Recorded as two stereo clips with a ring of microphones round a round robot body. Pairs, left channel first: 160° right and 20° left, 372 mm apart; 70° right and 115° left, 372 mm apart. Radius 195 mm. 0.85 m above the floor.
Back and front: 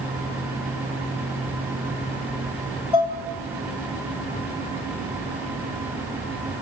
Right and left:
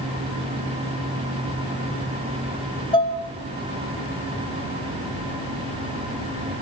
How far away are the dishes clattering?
About 2.5 m.